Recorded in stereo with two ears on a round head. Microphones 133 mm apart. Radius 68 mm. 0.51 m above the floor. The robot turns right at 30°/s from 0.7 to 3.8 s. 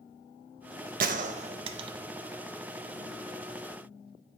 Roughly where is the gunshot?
Right.